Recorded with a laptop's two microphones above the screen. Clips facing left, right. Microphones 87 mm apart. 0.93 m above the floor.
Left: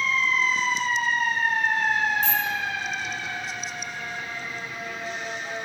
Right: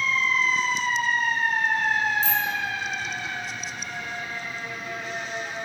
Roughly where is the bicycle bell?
Left.